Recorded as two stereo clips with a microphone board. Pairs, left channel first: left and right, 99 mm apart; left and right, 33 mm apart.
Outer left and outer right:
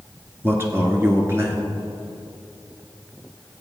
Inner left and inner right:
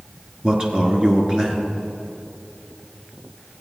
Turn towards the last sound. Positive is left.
turn(degrees=-25)  # may be behind; listen again after turning